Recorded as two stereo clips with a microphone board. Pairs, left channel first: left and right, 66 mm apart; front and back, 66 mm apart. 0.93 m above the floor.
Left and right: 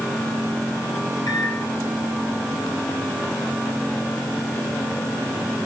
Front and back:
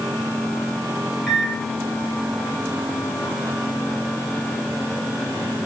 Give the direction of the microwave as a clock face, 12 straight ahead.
9 o'clock.